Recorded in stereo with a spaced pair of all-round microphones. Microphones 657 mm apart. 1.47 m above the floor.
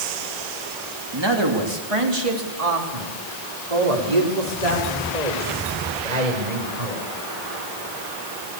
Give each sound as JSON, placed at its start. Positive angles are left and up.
{"t": 1.1, "sound": "a man speaking", "side_deg": -35, "distance_m": 3.0}